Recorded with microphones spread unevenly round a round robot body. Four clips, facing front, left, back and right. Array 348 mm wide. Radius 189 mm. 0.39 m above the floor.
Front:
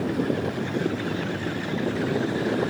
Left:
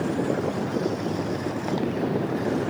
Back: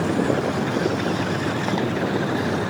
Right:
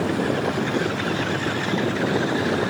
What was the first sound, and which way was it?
Only background noise.